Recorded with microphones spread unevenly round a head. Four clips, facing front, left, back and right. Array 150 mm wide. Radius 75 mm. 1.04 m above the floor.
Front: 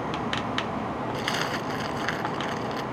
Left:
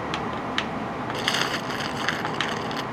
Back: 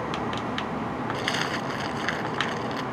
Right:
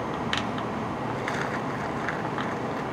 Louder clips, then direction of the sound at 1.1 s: Left 2 dB, even; 80° left.